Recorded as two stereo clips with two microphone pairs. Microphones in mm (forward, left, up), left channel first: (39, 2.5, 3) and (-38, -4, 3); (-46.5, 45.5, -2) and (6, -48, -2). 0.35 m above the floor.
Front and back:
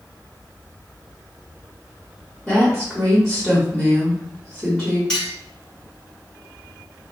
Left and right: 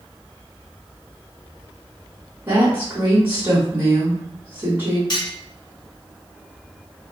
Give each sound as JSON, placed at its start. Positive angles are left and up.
{"t": 2.5, "sound": "a woman speaking", "azimuth_deg": -60, "distance_m": 1.0}
{"t": 5.1, "sound": "cutlery clinking", "azimuth_deg": 80, "distance_m": 1.2}